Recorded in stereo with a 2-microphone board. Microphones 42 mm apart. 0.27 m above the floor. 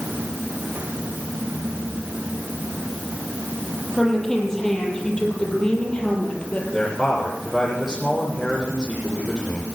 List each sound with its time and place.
4.0 s a woman speaking: 10° left (ahead or behind), 9 m; by 6.6 s 30° left (ahead or behind), 7 m
6.7 s a man speaking: centre (ahead or behind), 7.5 m